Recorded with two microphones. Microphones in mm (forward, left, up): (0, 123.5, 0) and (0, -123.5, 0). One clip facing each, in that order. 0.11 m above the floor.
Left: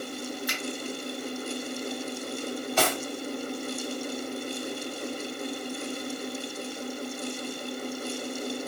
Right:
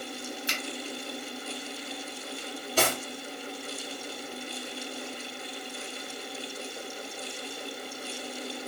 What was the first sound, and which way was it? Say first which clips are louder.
A finger snap: left 2 dB; 25° right (ahead or behind).